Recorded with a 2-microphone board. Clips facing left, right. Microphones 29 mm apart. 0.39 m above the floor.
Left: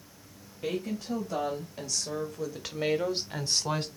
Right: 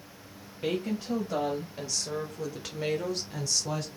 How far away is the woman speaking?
About 1.9 m.